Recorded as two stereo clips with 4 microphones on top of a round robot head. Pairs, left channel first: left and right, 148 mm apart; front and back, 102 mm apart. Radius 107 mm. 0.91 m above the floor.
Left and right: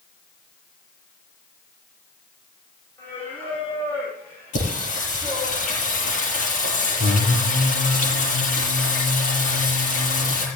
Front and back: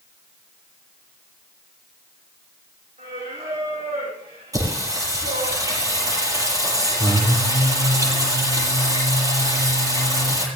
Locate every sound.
3.0 s singing: 170° left, 7.5 m
4.5 s singing: 125° left, 8 m